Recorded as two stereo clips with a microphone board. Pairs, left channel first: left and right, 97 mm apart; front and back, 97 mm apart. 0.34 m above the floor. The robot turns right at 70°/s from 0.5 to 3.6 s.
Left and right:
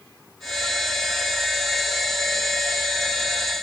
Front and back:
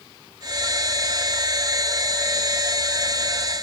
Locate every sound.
Only background noise.